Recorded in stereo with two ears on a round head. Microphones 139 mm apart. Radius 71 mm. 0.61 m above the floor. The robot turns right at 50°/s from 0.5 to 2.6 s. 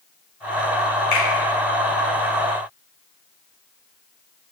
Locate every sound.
1.1 s a finger snap: 70° left (ahead or behind), 1.5 m